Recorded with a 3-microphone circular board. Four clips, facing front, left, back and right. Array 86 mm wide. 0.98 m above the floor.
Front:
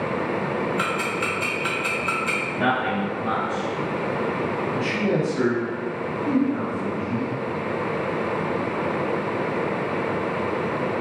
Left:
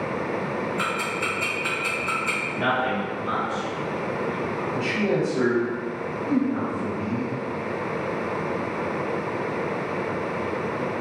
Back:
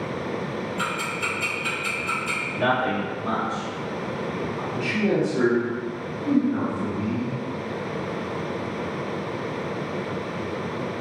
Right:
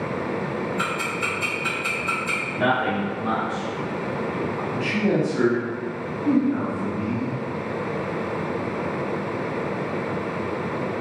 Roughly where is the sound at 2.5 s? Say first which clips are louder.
Right 2 dB, back 1 dB; ahead right.